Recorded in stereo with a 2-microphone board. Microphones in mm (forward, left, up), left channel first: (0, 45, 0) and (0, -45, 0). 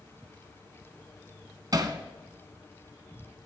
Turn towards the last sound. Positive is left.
turn(degrees=-45)  # may be behind; listen again after turning